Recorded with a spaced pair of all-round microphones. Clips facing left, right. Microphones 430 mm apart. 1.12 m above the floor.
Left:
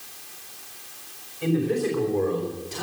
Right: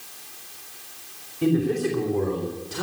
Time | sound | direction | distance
1.4 | a man speaking | 55° right (ahead or behind) | 3 m